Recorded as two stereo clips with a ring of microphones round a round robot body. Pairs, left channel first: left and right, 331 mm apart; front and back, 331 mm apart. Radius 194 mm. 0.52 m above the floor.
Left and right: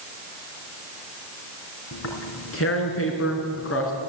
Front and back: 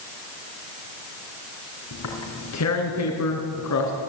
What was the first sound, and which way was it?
Tearing paper, 40° left.